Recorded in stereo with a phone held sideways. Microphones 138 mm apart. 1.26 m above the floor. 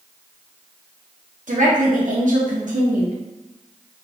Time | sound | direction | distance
1.5 | a woman speaking | 65° right (ahead or behind) | 0.8 m